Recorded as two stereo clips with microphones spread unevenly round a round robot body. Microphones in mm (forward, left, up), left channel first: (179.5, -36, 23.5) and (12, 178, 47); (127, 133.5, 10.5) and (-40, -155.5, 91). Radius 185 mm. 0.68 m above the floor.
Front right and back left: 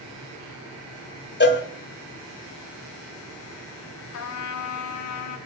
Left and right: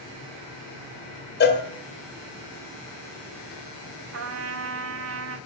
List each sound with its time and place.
1.4 s a cowbell: straight ahead, 1.4 m
4.1 s a trumpet: 70° right, 1.1 m